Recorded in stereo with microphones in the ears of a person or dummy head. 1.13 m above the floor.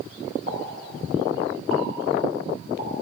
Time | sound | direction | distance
0.5 | a pop | 40° right (ahead or behind) | 4.5 m